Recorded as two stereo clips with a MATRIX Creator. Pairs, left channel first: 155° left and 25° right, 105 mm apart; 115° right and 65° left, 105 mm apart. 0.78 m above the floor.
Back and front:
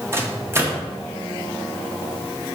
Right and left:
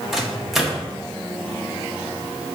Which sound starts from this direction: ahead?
A microwave, at 0.1 s.